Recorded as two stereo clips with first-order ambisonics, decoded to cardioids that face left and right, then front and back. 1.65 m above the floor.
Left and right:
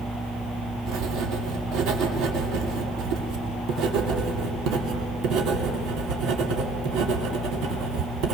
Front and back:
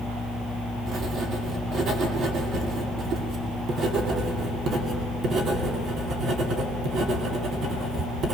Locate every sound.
0.9 s writing: 125° right, 2.5 m